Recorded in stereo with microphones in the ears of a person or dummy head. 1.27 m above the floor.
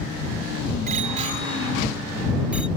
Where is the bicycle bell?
45° right (ahead or behind); by 2.7 s 5° right (ahead or behind).